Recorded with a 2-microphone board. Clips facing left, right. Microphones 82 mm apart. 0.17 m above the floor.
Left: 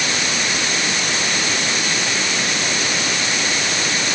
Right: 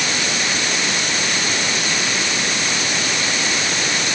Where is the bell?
I don't hear a bell.